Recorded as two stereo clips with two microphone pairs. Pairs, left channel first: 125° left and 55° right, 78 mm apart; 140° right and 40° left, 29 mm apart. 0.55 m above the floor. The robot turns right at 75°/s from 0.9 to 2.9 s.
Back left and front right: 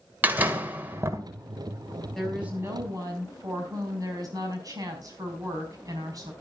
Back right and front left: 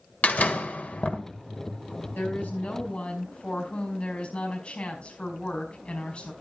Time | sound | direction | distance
0.2 | a door slam | 120° right | 1.9 m
2.1 | a woman speaking | 150° right | 4.5 m